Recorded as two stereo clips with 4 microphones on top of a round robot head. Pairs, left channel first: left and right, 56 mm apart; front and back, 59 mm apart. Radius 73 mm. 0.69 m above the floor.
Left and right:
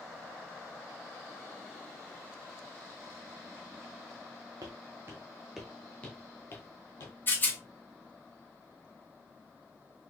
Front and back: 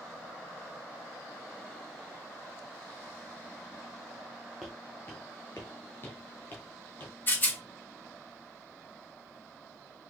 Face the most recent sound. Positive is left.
turn(degrees=50)